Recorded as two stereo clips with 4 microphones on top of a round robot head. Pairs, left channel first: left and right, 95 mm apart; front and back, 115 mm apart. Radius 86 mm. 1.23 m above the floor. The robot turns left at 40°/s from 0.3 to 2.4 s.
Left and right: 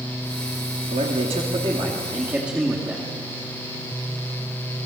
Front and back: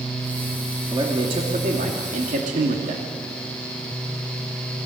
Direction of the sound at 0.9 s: 110° right.